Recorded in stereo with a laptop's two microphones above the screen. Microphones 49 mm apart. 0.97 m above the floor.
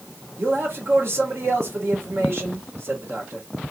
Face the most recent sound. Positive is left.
turn(degrees=-55)  # may be behind; listen again after turning